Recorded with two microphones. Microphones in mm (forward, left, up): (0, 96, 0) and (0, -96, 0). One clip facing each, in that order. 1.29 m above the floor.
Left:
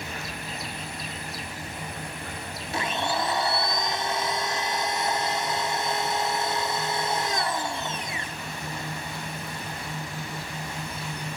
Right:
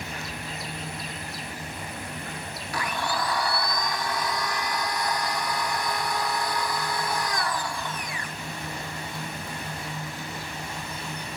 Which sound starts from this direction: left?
A blender, at 2.7 s.